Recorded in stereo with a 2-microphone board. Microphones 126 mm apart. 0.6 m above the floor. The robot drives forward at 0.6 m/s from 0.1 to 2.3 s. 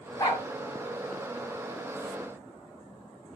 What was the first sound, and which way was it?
A dog barking, 30° left (ahead or behind).